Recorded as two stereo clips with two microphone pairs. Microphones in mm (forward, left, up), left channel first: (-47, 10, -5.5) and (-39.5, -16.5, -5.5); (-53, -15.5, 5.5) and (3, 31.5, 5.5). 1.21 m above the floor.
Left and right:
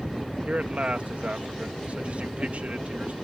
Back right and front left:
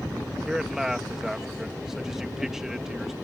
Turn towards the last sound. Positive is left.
turn(degrees=-45)